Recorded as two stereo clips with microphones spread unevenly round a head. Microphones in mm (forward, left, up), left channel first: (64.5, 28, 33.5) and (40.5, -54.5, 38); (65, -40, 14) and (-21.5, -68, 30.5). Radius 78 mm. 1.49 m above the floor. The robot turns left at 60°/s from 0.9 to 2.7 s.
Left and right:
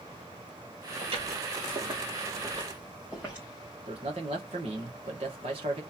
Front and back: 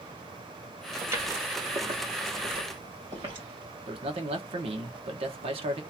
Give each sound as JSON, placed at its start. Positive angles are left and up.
{"t": 1.0, "sound": "footsteps", "azimuth_deg": -110, "distance_m": 2.5}
{"t": 3.9, "sound": "a man speaking", "azimuth_deg": -150, "distance_m": 1.4}